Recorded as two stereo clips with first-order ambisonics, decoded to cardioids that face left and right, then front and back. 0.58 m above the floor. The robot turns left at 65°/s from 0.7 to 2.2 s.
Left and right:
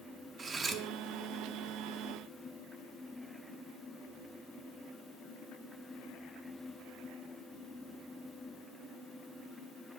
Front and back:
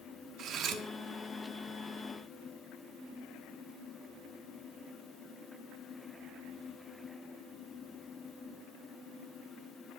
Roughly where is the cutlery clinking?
Behind right.